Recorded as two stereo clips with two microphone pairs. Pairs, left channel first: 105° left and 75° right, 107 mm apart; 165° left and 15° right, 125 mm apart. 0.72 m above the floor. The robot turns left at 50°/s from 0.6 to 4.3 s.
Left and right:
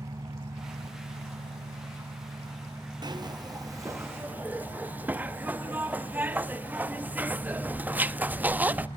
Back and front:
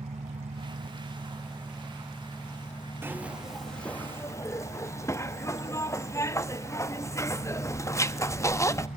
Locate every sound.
0.0 s an engine running: 25° right, 1.2 m; by 9.0 s 150° left, 1.2 m
3.0 s a zipper: 75° right, 0.7 m; by 8.9 s 140° right, 0.7 m